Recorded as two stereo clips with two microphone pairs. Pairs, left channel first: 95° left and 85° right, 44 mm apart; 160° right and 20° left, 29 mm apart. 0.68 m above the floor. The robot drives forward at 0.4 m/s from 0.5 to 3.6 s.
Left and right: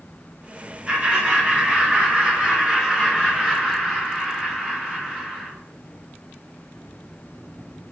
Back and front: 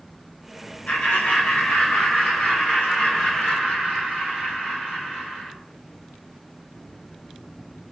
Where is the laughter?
155° right, 2 m; by 5.5 s 165° right, 3 m.